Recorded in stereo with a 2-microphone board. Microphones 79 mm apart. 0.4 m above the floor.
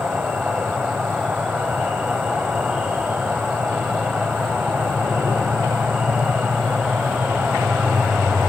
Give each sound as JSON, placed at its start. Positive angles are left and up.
{"t": 0.0, "sound": "an insect", "side_deg": -15, "distance_m": 3.5}